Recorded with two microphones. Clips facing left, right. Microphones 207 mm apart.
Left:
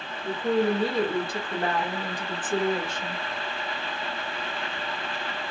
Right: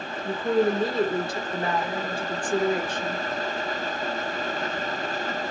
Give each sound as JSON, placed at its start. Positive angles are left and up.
{"t": 0.2, "sound": "a woman speaking", "side_deg": 75, "distance_m": 1.5}